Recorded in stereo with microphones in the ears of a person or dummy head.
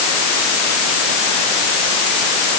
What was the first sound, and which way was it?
Only background noise.